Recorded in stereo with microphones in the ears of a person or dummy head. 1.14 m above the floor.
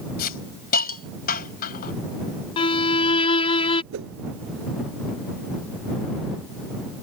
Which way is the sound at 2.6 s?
30° left (ahead or behind).